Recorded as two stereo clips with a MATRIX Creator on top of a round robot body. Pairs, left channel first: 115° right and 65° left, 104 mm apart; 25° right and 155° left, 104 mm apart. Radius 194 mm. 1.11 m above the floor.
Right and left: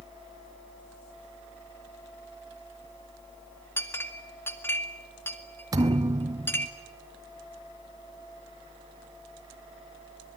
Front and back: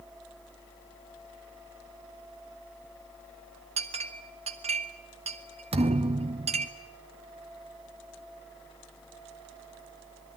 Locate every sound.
3.8 s a clink: 175° left, 2 m
5.7 s a thud: 125° left, 0.7 m